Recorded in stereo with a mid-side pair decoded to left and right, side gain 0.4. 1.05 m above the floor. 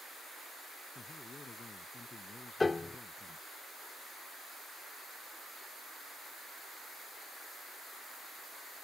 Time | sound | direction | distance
0.9 | a man speaking | 40° left | ?
2.6 | a piano | 35° left | ?